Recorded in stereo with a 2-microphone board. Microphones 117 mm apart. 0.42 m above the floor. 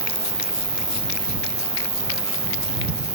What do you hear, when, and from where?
0.0 s an insect: 55° left (ahead or behind)